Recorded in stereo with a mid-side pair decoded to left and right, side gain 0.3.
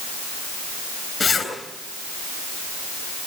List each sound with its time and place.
1.2 s a zipper: 60° left, 7.5 m